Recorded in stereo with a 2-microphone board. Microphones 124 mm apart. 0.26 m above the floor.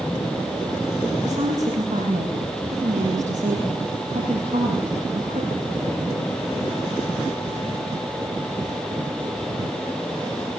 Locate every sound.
1.2 s a woman speaking: 85° right, 8.5 m